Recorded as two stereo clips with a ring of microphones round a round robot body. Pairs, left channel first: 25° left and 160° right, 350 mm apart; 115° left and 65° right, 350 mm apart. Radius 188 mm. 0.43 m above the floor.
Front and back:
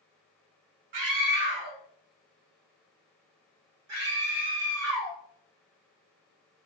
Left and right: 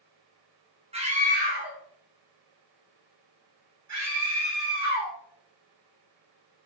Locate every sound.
0.9 s a scream: 140° right, 1.4 m; by 5.2 s 110° right, 3 m